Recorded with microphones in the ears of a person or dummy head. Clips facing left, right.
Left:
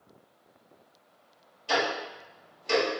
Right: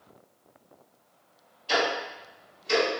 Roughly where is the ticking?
Left.